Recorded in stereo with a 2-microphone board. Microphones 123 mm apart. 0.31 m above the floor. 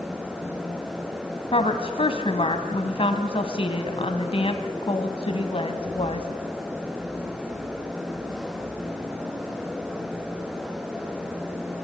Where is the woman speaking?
50° left (ahead or behind), 1.9 m.